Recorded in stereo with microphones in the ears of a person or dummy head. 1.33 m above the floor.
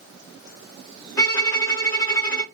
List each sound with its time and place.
1.2 s a violin: 15° left (ahead or behind), 0.8 m